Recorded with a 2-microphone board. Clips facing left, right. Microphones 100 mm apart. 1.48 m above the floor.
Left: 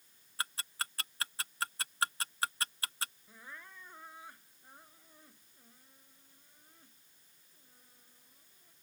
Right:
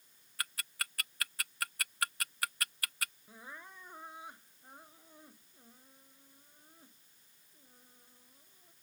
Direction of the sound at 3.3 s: 20° right (ahead or behind).